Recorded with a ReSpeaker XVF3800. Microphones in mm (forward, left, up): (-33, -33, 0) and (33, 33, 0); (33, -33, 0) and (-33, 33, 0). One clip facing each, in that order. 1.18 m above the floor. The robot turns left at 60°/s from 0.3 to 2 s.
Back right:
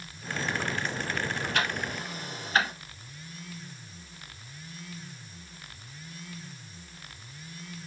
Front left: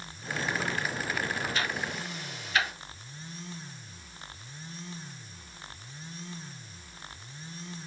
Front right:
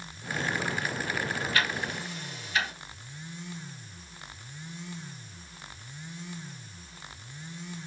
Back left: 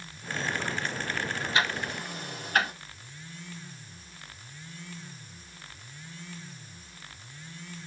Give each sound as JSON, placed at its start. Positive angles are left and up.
{"t": 1.5, "sound": "ticking", "azimuth_deg": -155, "distance_m": 1.4}